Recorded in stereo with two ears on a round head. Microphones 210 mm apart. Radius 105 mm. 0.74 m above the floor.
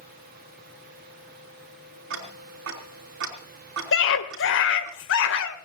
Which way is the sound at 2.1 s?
60° right (ahead or behind).